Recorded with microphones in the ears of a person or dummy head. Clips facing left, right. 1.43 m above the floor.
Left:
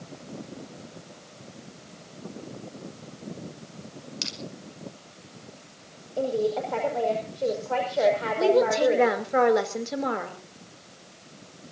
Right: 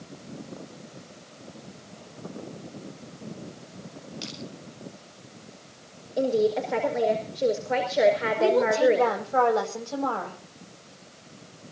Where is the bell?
I don't hear a bell.